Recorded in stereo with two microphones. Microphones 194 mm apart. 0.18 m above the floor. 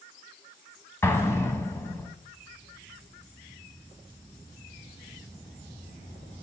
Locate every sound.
1.0 s an explosion: 15° left (ahead or behind), 0.5 m